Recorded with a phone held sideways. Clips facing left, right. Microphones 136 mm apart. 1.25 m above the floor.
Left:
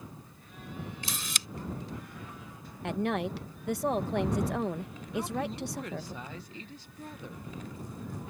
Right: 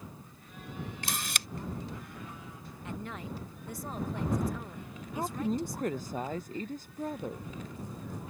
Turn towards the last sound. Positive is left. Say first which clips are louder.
# right 1 dB
turn(degrees=-45)  # may be behind; listen again after turning